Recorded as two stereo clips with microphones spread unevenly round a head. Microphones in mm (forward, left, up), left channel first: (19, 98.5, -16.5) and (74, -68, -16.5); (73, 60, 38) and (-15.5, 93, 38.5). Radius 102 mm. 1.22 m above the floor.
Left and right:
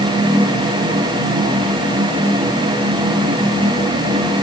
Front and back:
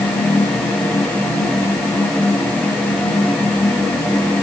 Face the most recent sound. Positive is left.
No sound to turn to.